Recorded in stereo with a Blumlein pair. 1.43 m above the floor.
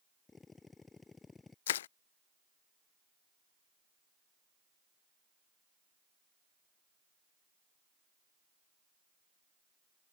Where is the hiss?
I don't hear a hiss.